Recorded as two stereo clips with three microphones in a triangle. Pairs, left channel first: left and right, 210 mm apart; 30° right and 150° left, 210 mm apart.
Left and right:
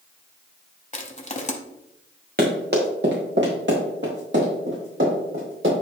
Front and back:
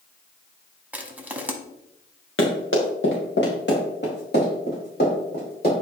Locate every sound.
0.9 s crushing: 75° left, 0.9 m
2.4 s running footsteps: 45° right, 2.5 m; by 5.7 s 75° right, 5.5 m